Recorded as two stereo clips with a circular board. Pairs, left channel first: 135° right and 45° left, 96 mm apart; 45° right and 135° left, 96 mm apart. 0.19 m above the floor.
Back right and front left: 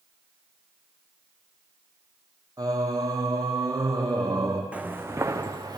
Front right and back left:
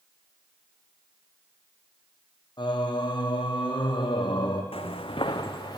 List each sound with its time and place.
2.6 s singing: 5° right, 1.3 m
4.7 s footsteps: 30° right, 0.8 m; by 5.8 s straight ahead, 1.3 m